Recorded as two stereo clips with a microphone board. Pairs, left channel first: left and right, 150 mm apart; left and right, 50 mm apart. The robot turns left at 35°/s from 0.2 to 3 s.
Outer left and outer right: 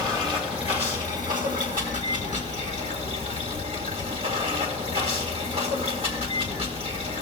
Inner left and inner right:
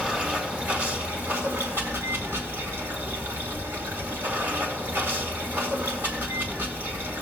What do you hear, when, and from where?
0.0 s running water: 35° right, 1.8 m; by 7.2 s 130° right, 1.8 m